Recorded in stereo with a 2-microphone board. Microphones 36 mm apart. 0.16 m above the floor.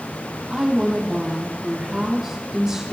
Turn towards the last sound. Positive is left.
turn(degrees=-15)  # may be behind; listen again after turning